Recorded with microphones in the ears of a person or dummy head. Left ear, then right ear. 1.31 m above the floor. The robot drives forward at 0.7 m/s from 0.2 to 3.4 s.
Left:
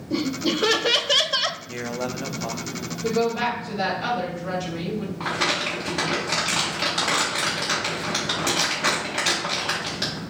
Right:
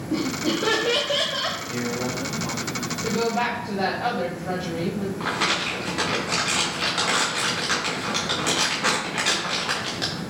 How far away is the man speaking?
About 0.7 m.